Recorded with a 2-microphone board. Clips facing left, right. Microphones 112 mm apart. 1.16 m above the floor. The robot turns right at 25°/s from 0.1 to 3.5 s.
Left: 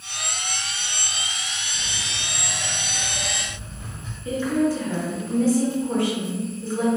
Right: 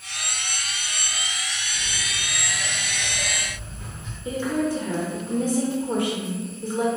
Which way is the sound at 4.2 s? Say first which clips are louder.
Left 3 dB; 15° right (ahead or behind).